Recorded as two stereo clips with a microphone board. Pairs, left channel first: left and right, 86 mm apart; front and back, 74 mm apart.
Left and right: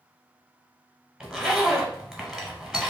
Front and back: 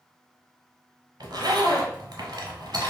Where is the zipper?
175° right, 0.8 m.